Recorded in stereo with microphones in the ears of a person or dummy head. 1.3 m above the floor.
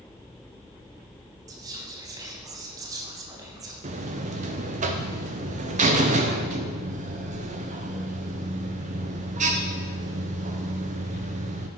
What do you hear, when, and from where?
1.5 s whispering: 15° right (ahead or behind), 0.5 m
3.8 s a buzzer: 35° right (ahead or behind), 0.5 m